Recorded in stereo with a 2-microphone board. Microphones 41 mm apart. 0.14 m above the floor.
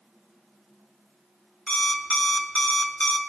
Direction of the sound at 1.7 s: 35° left (ahead or behind).